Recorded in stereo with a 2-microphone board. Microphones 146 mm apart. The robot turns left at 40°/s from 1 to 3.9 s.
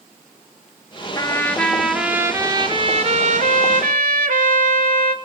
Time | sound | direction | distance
1.1 | a trumpet | 25° left | 0.6 m